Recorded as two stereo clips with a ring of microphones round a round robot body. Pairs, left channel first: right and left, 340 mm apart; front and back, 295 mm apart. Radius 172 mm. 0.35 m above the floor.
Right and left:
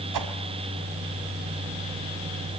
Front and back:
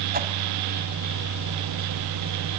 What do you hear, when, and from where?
0.1 s a whoosh: 120° left, 1.8 m